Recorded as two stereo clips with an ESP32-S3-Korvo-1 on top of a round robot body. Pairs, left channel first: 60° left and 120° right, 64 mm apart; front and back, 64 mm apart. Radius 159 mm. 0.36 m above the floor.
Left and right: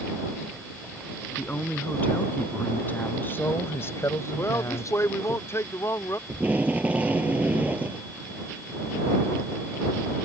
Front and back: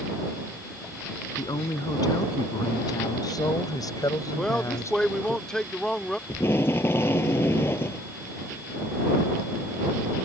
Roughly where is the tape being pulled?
Ahead right.